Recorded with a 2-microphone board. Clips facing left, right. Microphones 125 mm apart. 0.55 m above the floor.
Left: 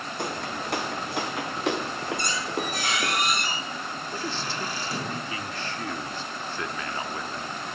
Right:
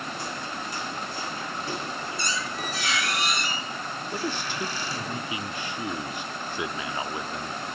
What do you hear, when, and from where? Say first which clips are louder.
0.2 s footsteps: left 3 dB; 60° left (ahead or behind), 1.6 m; by 3.2 s 80° left, 3 m
2.2 s a squeak: left 2 dB; 50° left (ahead or behind), 8 m
4.1 s a man speaking: right 2 dB; 15° right (ahead or behind), 0.8 m